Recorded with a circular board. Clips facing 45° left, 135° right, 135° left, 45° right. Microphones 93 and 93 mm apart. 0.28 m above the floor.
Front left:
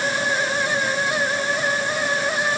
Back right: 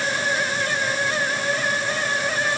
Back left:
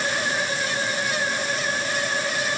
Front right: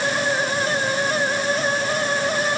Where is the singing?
I don't hear singing.